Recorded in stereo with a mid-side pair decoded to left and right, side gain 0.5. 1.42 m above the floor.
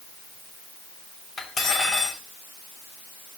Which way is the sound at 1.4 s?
45° left.